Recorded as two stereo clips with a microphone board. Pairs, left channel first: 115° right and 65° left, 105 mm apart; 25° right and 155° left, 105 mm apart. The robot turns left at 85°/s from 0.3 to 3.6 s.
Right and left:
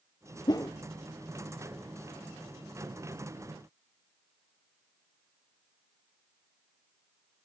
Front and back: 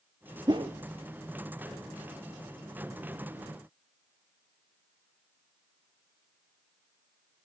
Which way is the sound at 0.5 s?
155° right.